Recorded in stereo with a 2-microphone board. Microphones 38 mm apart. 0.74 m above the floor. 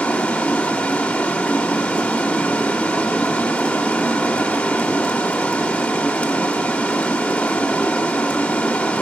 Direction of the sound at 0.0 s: 25° left (ahead or behind).